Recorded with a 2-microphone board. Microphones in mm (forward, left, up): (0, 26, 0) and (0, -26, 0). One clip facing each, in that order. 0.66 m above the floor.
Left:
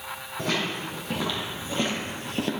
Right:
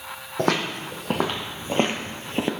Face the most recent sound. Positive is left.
turn(degrees=-25)  # may be behind; listen again after turning